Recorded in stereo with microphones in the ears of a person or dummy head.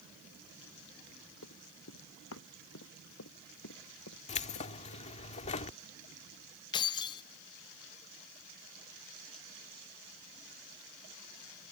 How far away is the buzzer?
No buzzer in this recording.